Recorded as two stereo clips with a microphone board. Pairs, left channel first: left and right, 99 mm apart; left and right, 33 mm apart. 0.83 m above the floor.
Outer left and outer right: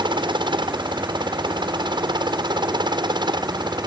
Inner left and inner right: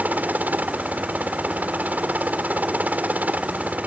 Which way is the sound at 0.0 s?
55° right (ahead or behind).